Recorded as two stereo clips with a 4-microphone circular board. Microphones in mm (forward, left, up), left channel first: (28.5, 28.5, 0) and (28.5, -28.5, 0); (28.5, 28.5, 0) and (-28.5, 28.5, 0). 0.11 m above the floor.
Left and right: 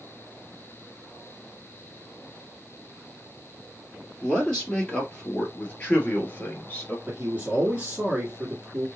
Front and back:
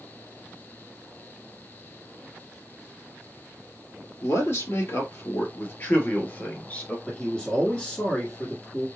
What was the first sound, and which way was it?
A man speaking, 15° left.